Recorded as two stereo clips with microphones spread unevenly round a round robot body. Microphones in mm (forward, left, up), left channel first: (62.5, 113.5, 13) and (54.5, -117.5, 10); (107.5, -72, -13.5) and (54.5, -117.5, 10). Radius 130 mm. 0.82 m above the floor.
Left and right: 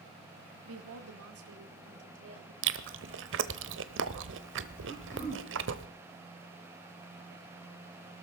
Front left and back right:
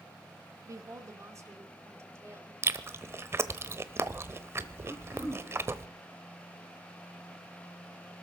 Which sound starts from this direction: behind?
Throat clearing, at 4.9 s.